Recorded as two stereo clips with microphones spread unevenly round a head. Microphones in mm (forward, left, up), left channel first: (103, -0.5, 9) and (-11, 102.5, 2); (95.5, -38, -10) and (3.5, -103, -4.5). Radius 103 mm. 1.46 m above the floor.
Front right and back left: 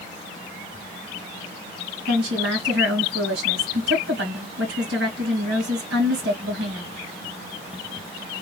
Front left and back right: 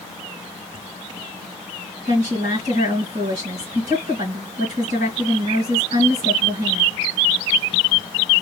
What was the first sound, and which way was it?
A woman speaking, 165° left.